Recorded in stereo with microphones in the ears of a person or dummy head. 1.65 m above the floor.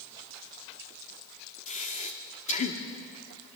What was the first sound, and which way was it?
Breathing, 35° left (ahead or behind).